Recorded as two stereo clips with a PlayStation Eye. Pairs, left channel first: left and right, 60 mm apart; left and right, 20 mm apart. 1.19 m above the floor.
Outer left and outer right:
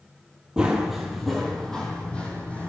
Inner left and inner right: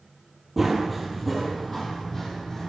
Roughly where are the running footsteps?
Centre.